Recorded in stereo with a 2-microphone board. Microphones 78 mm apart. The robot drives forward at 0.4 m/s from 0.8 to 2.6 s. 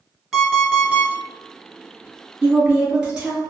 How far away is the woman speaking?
About 1.6 m.